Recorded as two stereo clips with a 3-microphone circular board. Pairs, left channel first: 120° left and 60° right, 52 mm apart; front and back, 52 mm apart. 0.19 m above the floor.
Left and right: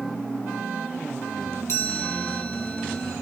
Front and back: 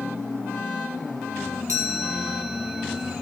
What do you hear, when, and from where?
1.7 s a chime: 150° left, 2.5 m